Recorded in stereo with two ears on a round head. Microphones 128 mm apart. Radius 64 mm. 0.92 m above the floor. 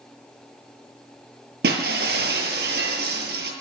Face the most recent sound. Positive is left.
turn(degrees=-85)